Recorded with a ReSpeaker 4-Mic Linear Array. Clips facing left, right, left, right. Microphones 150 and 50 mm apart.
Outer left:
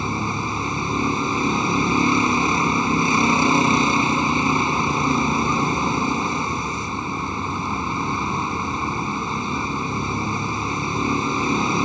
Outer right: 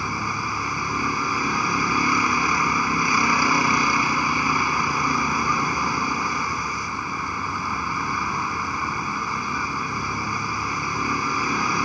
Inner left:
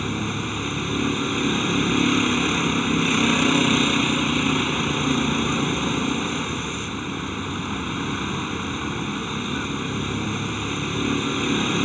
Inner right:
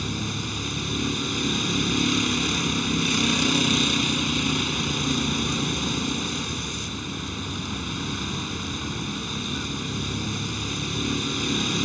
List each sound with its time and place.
0.0 s a vehicle: 25° left (ahead or behind)